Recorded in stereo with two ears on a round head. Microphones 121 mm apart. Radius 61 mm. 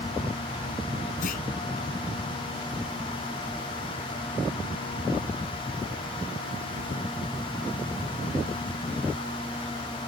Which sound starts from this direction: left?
A clunk, at 1.2 s.